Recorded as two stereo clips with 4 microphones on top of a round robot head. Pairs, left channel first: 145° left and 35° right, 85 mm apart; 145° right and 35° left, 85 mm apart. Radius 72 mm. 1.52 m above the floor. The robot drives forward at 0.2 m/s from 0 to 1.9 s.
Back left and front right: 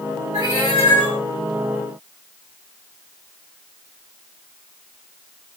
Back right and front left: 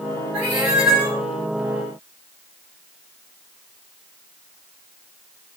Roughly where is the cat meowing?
Left.